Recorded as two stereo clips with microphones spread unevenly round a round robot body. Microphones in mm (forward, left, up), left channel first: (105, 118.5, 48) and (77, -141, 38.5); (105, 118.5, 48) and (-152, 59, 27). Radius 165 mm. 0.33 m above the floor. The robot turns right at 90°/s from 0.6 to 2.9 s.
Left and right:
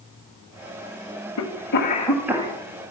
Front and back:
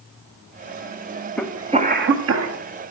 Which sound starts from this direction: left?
A cough, at 1.4 s.